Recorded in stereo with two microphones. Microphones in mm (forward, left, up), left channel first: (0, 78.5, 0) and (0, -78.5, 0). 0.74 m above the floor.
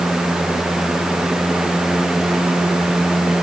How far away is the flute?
I don't hear a flute.